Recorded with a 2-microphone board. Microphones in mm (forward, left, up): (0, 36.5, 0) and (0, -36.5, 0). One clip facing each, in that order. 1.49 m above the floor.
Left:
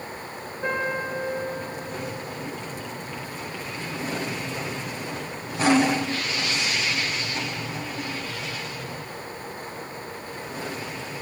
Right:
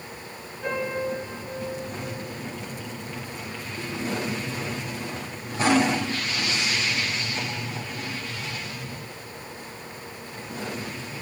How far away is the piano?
About 6 m.